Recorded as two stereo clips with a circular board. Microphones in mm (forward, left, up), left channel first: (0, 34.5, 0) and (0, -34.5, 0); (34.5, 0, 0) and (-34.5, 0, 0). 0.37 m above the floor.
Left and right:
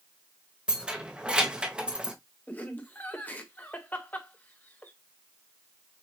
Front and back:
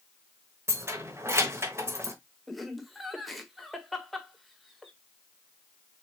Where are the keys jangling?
160° right, 1.1 m.